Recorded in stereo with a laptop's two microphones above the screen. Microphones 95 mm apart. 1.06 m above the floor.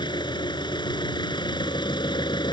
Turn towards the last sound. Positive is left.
turn(degrees=55)  # may be behind; listen again after turning